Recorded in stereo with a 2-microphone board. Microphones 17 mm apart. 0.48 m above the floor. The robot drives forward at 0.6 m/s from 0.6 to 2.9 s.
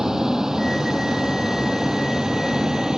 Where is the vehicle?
30° right (ahead or behind); by 3.0 s 35° right (ahead or behind).